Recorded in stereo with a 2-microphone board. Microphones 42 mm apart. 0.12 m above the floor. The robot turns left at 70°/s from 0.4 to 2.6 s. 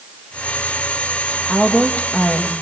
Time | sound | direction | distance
1.5 | a woman speaking | 165° left | 3.5 m